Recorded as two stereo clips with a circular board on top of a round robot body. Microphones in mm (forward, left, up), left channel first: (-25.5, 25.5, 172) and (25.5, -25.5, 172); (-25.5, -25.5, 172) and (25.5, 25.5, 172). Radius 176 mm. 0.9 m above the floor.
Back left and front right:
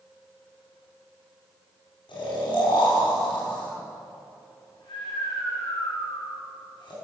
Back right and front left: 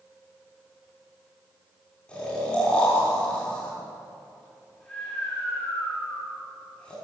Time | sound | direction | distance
2.1 | snoring | 145° left | 6 m